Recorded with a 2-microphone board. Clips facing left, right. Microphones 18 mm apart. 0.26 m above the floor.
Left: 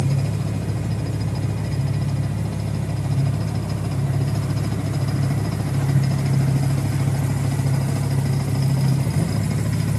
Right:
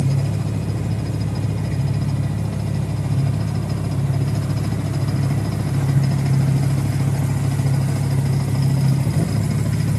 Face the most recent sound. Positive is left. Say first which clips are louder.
# right 1 dB
turn(degrees=-45)  # may be behind; listen again after turning